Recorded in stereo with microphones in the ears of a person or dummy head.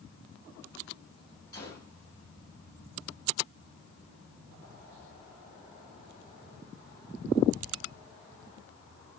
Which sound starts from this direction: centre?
A gunshot, at 1.5 s.